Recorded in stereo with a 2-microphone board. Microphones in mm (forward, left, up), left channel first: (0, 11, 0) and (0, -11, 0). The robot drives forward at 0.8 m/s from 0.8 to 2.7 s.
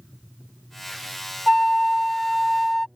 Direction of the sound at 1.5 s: 20° left (ahead or behind).